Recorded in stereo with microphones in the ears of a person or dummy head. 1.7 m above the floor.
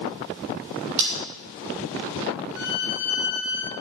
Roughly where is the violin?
Left.